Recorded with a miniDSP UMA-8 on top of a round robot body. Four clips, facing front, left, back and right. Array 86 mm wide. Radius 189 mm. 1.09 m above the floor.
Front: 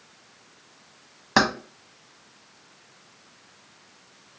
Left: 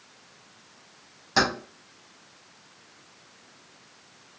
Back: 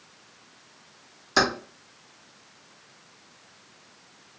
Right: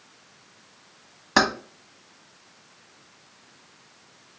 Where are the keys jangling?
30° right, 1.2 m.